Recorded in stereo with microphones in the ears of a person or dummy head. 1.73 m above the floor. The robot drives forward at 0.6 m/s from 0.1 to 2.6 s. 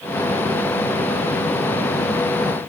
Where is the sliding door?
I don't hear a sliding door.